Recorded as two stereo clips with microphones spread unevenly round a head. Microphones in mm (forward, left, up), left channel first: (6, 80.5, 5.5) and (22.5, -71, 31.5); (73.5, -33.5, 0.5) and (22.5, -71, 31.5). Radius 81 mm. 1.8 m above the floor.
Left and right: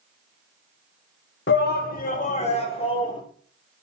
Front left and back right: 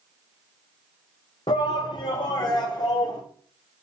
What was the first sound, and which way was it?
A shout, 80° left.